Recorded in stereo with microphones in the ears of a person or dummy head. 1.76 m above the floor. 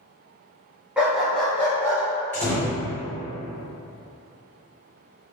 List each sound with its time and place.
1.0 s a dog barking: 10° right (ahead or behind), 1.3 m; by 2.0 s 20° left (ahead or behind), 1.9 m
2.3 s a door slam: 15° left (ahead or behind), 1.3 m